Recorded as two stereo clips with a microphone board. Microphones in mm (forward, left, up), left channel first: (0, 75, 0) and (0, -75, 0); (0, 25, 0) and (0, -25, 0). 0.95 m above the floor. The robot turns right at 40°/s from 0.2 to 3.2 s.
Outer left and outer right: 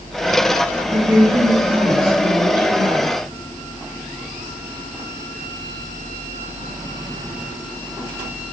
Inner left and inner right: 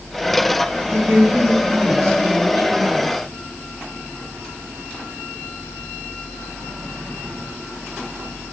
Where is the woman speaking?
135° right, 1.5 m; by 3.1 s 50° right, 1.5 m.